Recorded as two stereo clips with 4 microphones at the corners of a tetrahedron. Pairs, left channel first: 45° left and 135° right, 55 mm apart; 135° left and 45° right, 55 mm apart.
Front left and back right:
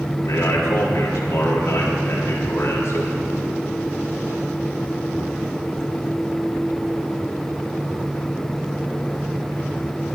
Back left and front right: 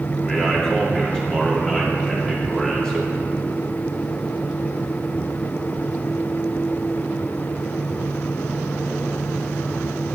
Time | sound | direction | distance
0.2 | a man speaking | 55° left | 2.5 m